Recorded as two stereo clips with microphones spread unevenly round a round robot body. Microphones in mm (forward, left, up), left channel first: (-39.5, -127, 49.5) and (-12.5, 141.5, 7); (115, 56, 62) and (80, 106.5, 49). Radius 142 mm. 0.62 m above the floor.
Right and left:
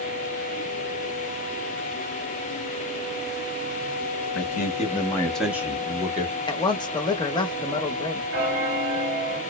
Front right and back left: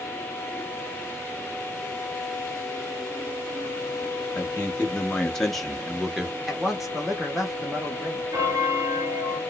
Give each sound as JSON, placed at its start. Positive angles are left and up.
{"t": 4.3, "sound": "a man speaking", "azimuth_deg": -115, "distance_m": 0.9}
{"t": 6.5, "sound": "a man speaking", "azimuth_deg": -175, "distance_m": 0.7}
{"t": 8.3, "sound": "a bell", "azimuth_deg": 100, "distance_m": 1.8}